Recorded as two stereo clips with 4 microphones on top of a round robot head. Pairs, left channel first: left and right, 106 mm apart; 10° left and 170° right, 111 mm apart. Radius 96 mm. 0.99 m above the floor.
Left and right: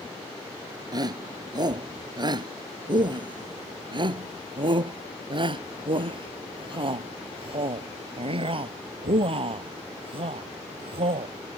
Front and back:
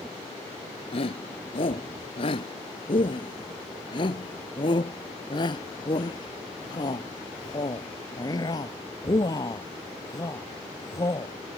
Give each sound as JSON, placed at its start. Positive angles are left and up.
{"t": 0.9, "sound": "a shout", "azimuth_deg": -40}